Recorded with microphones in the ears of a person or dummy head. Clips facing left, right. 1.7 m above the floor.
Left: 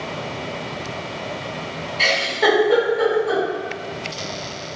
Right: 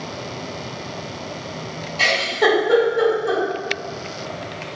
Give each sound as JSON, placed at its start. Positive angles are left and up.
{"t": 2.0, "sound": "a giggle", "side_deg": -85, "distance_m": 1.4}